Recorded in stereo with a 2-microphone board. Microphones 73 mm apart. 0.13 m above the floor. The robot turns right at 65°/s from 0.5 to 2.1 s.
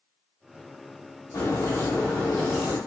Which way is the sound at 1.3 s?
120° left.